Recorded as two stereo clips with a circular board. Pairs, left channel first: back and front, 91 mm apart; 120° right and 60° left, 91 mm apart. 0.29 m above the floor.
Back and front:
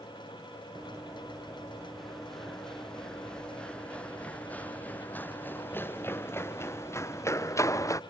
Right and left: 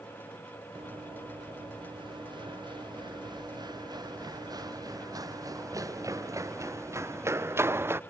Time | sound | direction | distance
0.8 | running footsteps | 85° left | ?